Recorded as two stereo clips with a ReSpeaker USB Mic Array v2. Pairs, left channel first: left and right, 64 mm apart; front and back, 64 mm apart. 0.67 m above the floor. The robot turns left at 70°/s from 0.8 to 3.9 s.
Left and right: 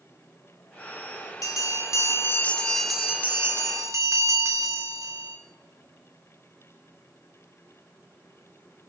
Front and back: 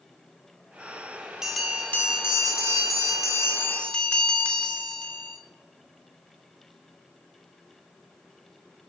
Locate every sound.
1.4 s a bell: 100° left, 2 m; by 5.4 s 75° right, 2 m